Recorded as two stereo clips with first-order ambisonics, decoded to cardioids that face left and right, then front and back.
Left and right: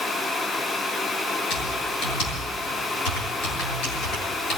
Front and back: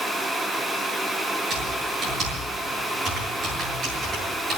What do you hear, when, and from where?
1.5 s typing on a keyboard: 125° left, 8 m